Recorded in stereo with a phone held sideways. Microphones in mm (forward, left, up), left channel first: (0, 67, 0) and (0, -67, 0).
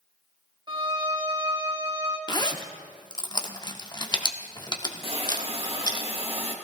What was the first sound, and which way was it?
A violin, 30° right (ahead or behind).